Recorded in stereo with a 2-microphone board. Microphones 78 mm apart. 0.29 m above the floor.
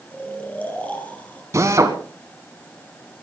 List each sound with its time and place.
0.1 s snoring: 20° left (ahead or behind), 4.5 m
1.5 s a drill: 40° right (ahead or behind), 2 m